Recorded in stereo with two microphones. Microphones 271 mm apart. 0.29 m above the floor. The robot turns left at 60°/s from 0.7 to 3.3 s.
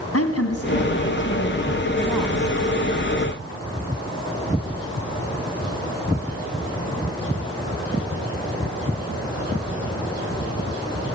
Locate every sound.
0.1 s a woman speaking: 90° left, 2.5 m; by 2.6 s 25° right, 2.5 m